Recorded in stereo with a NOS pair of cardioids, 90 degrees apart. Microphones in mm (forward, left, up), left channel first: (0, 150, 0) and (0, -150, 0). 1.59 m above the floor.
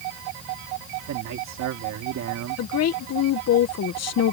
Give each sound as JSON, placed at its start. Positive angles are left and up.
{"t": 1.1, "sound": "a man speaking", "azimuth_deg": -65}
{"t": 2.6, "sound": "a woman speaking", "azimuth_deg": 55}